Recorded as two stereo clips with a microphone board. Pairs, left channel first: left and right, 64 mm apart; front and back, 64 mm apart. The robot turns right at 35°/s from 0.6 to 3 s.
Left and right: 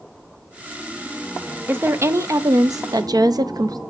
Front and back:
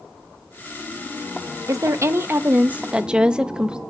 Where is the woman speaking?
150° right, 0.6 m; by 3.8 s 105° right, 0.6 m.